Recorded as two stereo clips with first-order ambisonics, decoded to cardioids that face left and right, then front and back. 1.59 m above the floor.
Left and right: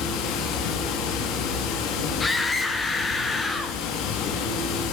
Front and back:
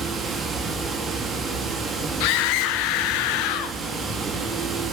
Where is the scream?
15° left, 1.2 m.